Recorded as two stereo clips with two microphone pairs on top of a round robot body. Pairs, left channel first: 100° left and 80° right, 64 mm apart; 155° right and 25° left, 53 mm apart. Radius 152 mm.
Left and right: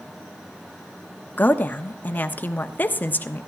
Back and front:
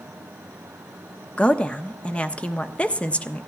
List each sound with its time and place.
1.4 s a woman speaking: 155° left, 1.2 m